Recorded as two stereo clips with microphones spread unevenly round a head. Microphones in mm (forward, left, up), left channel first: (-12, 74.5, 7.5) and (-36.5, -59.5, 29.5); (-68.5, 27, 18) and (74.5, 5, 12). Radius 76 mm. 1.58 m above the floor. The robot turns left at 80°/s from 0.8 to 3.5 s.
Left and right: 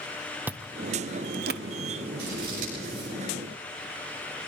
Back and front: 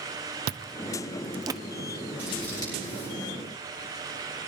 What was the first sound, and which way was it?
Chewing, 20° right.